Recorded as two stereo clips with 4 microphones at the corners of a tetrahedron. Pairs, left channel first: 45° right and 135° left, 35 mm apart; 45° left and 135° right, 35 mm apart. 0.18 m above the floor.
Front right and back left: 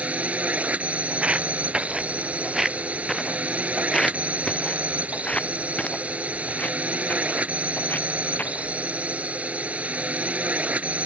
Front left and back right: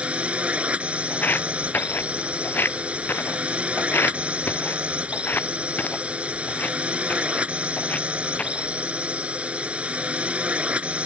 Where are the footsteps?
80° left; by 8.7 s 5° right.